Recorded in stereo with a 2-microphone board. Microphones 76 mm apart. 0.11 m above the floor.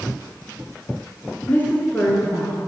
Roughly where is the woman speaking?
Left.